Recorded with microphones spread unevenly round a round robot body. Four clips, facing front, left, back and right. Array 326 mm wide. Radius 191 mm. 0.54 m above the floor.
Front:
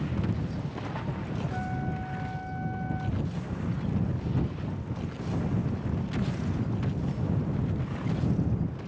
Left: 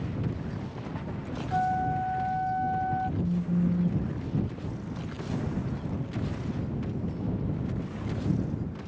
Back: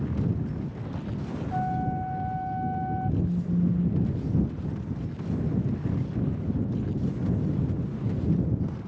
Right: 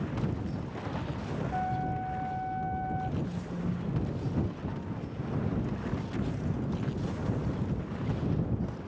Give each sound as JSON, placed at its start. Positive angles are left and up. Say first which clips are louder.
{"t": 1.5, "sound": "a flute", "louder": "left 7 dB, back 5 dB", "azimuth_deg": 120}
{"t": 3.2, "sound": "a phone buzzing", "louder": "left 7 dB, back 7 dB", "azimuth_deg": 140}